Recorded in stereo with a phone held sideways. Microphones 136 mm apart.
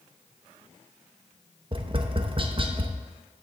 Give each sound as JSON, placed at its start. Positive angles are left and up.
{"t": 1.7, "sound": "tapping", "side_deg": -40, "distance_m": 0.7}